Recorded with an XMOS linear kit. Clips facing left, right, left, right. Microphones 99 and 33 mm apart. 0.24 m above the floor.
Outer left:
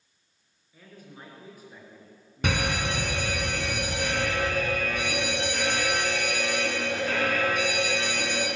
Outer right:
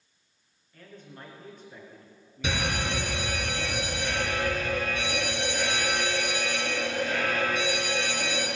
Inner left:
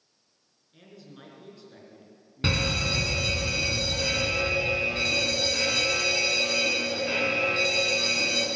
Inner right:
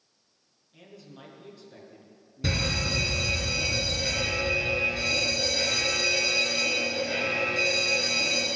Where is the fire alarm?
55° left (ahead or behind), 4 m.